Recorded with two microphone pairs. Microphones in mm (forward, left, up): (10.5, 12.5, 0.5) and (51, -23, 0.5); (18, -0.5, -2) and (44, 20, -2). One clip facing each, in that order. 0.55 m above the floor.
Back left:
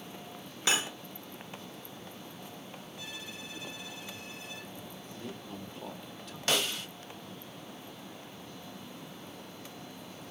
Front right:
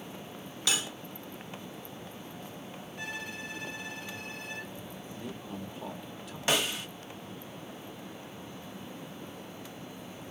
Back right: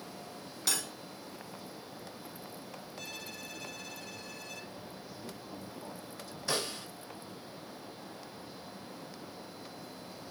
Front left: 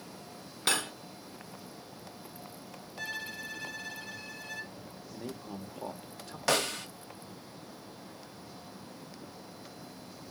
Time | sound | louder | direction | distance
0.7 | cutlery clinking | back left 2 dB, front left 6 dB | 80° left | 0.6 m
3.0 | a violin | front right 8 dB, front left 8 dB | 20° right | 1.2 m
5.1 | a man speaking | front right 2 dB, front left 7 dB | 45° left | 1.2 m
6.5 | a snare drum | front right 2 dB, front left 6 dB | 35° left | 1.1 m